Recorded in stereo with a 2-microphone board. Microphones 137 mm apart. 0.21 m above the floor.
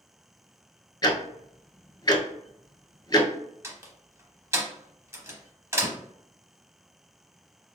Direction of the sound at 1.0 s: 30° left (ahead or behind).